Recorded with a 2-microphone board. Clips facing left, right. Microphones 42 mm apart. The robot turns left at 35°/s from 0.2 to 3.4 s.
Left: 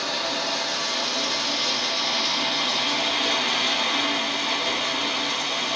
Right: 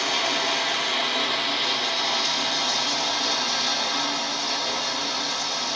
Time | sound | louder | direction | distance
0.0 | running water | right 3 dB | 115° right | 1.2 m